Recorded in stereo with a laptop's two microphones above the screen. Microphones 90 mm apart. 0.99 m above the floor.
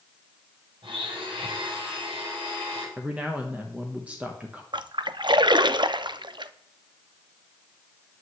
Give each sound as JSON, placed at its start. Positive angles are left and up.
{"t": 0.8, "sound": "a blender", "side_deg": -70, "distance_m": 5.5}
{"t": 3.0, "sound": "a man speaking", "side_deg": -15, "distance_m": 1.0}
{"t": 4.7, "sound": "a splash", "side_deg": -55, "distance_m": 0.5}